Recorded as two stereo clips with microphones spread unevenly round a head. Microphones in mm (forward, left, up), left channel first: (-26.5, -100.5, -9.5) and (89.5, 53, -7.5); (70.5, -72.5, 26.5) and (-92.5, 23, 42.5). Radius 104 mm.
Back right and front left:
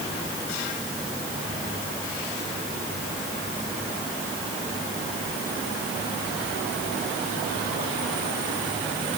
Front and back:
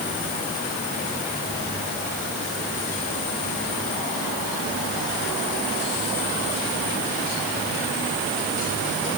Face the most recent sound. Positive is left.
No sound to turn to.